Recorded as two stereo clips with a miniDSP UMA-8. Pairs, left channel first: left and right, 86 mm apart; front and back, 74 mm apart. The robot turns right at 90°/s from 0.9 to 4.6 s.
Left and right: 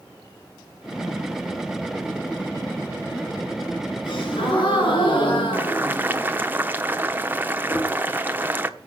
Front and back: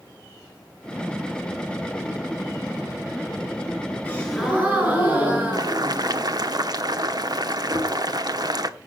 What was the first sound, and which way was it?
A gasp, 60° left.